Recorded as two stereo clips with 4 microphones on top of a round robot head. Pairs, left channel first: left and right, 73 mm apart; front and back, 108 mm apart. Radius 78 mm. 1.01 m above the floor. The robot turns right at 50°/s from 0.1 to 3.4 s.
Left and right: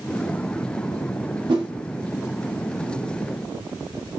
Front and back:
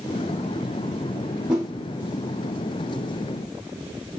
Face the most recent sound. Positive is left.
turn(degrees=-5)